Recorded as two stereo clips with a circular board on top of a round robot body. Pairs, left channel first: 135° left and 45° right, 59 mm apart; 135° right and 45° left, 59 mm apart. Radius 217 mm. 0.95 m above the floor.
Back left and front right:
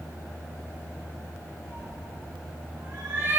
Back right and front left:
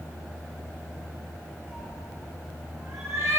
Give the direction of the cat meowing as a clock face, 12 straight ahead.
11 o'clock.